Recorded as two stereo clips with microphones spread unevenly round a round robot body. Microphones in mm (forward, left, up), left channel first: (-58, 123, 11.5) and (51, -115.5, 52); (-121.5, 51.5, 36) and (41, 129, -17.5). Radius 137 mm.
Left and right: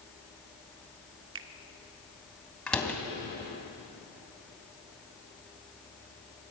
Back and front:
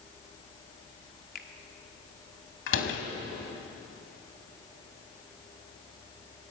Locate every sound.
1.4 s a finger snap: 100° right, 1.3 m
2.7 s a door slam: 160° right, 2.5 m